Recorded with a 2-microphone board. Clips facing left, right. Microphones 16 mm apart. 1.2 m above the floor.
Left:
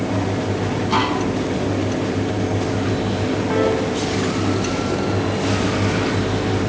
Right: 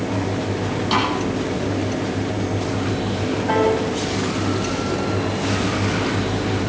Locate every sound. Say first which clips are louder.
0.9 s a snare drum: even; 40° right (ahead or behind), 7 m
3.5 s a piano: right 2 dB; 70° right (ahead or behind), 9 m